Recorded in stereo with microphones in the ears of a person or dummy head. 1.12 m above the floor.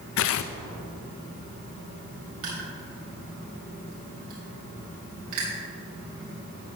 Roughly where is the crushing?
Right.